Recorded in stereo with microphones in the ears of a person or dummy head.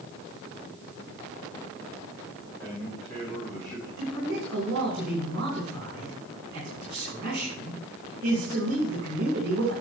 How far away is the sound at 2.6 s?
About 5 m.